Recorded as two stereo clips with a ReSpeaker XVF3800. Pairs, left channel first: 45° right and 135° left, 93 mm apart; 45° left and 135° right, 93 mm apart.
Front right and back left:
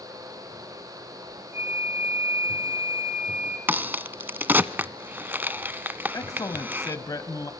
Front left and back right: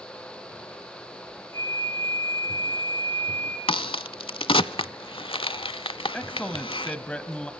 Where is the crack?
65° left, 0.6 m.